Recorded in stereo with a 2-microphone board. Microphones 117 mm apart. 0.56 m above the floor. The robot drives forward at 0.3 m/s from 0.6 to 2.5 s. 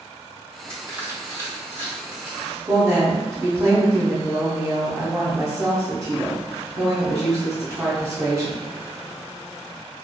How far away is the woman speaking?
About 0.6 m.